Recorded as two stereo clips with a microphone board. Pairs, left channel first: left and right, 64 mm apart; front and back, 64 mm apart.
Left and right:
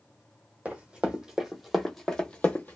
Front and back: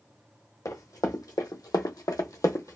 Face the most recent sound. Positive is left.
turn(degrees=35)